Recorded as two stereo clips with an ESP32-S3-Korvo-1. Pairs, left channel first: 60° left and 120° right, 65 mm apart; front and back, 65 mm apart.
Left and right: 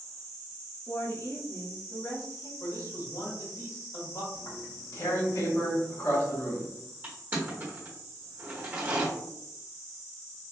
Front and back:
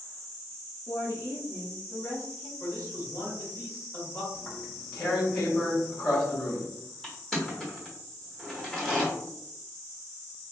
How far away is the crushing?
About 1.3 m.